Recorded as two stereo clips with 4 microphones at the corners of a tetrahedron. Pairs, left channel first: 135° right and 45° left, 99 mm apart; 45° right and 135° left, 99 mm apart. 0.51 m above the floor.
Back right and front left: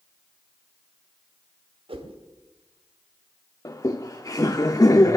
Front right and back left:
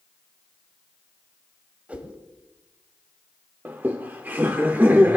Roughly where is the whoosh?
Ahead left.